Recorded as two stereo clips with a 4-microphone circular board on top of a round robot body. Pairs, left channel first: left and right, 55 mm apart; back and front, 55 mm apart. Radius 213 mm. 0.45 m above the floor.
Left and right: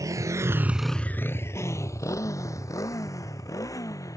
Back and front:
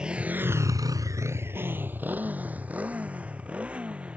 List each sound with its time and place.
0.0 s a motorcycle: 75° right; by 4.2 s 70° left